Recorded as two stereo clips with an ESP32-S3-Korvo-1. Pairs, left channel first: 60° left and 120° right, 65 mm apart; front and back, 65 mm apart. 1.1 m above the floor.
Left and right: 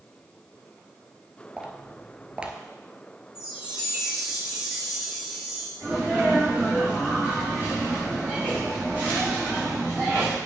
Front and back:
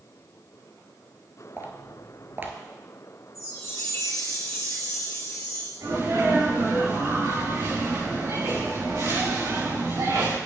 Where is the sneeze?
175° left, 5 m.